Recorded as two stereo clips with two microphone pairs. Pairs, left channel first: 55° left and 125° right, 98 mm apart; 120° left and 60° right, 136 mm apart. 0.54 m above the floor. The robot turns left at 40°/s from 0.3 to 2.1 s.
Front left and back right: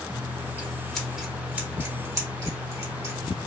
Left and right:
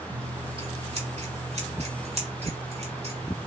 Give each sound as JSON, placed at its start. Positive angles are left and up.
{"t": 0.1, "sound": "scissors", "azimuth_deg": -10, "distance_m": 1.1}